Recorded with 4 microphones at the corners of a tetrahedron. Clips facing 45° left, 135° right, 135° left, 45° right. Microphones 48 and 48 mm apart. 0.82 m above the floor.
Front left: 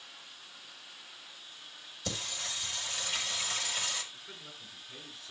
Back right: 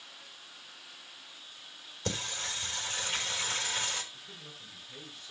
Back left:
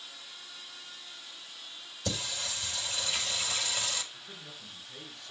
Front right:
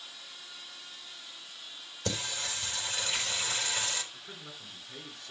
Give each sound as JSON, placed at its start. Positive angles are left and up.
{"t": 2.0, "sound": "singing", "azimuth_deg": -85, "distance_m": 4.0}
{"t": 4.1, "sound": "a man speaking", "azimuth_deg": -25, "distance_m": 8.0}